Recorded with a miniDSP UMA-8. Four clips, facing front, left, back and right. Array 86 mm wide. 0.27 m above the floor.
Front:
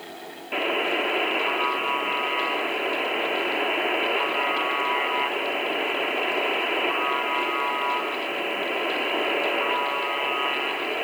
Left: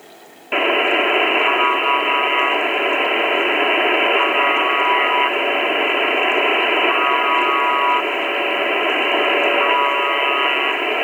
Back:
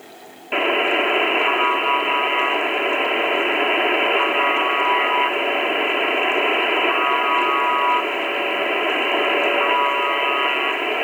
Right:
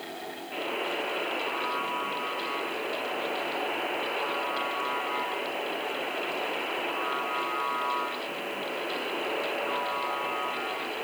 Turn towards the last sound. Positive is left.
turn(degrees=110)